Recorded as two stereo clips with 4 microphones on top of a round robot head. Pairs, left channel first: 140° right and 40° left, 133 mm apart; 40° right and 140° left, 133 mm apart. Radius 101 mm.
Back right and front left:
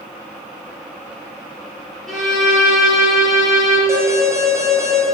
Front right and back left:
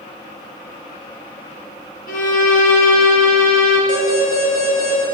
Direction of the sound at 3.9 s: 30° right.